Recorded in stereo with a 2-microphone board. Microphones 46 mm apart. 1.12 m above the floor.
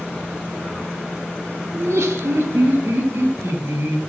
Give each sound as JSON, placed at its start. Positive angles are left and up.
{"t": 1.7, "sound": "laughter", "side_deg": -75, "distance_m": 1.1}